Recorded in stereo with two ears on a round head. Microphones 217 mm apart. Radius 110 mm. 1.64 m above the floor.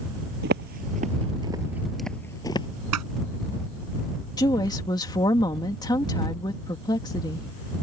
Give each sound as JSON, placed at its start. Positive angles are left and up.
{"t": 0.4, "sound": "footsteps", "side_deg": -45}
{"t": 2.9, "sound": "scissors", "side_deg": -85}
{"t": 4.4, "sound": "a woman speaking", "side_deg": 15}